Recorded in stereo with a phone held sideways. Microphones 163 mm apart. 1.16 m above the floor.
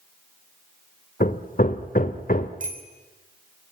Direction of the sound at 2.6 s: 55° right (ahead or behind).